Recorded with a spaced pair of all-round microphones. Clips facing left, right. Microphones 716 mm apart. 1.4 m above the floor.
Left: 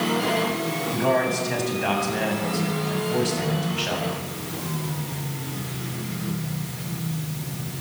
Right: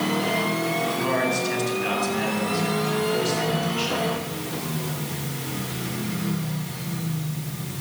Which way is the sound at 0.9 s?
70° left (ahead or behind).